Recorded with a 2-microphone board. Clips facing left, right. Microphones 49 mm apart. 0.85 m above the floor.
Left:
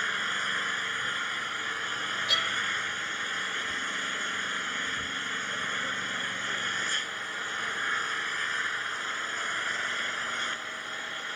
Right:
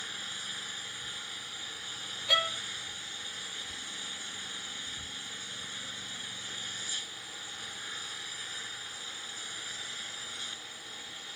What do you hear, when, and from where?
0.0 s an engine running: 50° left (ahead or behind)
2.3 s a violin: 20° right (ahead or behind)